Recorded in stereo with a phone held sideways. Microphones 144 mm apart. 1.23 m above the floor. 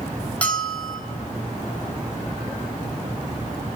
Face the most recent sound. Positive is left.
turn(degrees=10)  # may be behind; listen again after turning